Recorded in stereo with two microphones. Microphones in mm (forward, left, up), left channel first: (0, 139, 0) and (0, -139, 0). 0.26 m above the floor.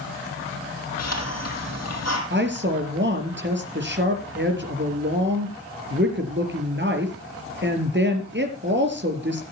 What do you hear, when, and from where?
1.0 s a hiss: 70° left (ahead or behind), 5.5 m
2.3 s a woman speaking: 45° right (ahead or behind), 4.5 m